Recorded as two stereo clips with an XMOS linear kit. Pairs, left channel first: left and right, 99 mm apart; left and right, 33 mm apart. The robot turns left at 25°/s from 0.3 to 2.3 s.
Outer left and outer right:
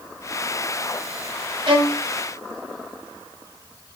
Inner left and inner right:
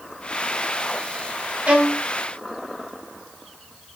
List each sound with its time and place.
1.7 s a violin: 60° right (ahead or behind), 0.7 m; by 2.0 s 50° right (ahead or behind), 0.7 m